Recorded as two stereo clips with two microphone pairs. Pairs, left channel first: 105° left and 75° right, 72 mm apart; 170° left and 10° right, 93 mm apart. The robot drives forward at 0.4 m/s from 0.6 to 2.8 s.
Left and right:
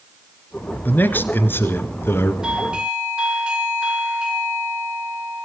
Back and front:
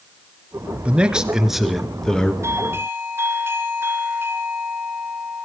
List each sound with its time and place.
0.8 s a man speaking: 55° left, 1.6 m; by 2.3 s 90° left, 1.5 m
2.4 s a doorbell: 15° right, 2 m